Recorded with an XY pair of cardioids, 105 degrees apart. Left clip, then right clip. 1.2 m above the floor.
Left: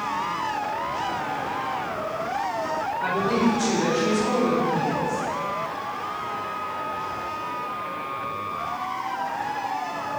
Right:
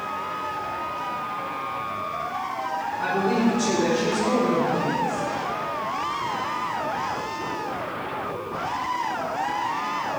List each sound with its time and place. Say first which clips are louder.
3.0 s a woman speaking: right 1 dB; 15° right, 3.5 m